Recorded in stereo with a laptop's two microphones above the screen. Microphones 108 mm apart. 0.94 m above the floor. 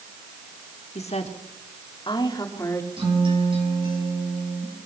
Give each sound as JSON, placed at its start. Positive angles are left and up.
{"t": 0.9, "sound": "a woman speaking", "side_deg": 80, "distance_m": 2.0}
{"t": 3.0, "sound": "a guitar", "side_deg": -50, "distance_m": 7.0}